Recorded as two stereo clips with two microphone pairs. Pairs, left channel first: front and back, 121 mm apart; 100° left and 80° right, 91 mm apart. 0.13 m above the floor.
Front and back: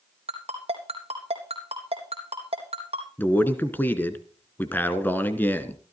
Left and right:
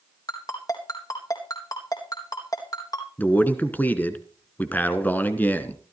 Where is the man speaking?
55° left, 1.4 m.